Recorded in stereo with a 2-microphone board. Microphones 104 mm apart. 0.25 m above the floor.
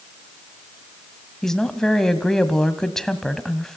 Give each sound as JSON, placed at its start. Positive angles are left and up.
{"t": 1.4, "sound": "a woman speaking", "side_deg": 5, "distance_m": 1.7}